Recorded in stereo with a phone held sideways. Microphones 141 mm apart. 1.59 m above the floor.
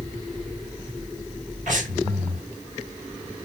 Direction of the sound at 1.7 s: 70° right (ahead or behind).